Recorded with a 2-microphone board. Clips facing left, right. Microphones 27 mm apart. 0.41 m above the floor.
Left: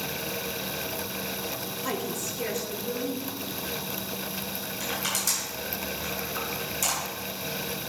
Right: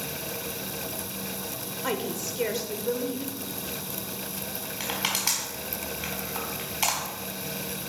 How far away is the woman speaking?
About 1.5 m.